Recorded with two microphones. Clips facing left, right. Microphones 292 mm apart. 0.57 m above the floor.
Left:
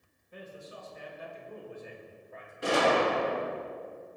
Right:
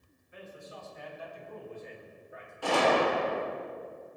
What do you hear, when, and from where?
0.3 s a man speaking: 45° left (ahead or behind), 4 m; by 2.5 s 15° right (ahead or behind), 2.5 m
2.6 s a gunshot: 20° left (ahead or behind), 2.0 m